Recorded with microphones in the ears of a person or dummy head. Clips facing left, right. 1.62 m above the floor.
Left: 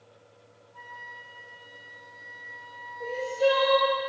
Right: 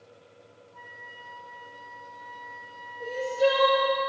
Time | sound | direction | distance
0.7 | a flute | 40° left (ahead or behind) | 1.8 m
3.0 | crying | 5° right (ahead or behind) | 3 m